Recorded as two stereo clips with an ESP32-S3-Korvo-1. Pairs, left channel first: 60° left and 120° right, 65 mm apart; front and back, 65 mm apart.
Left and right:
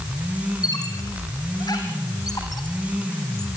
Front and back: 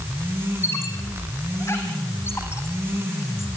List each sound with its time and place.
0.6 s a squeak: 45° left, 3.5 m